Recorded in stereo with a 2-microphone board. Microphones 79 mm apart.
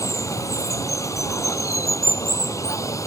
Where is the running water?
40° left (ahead or behind).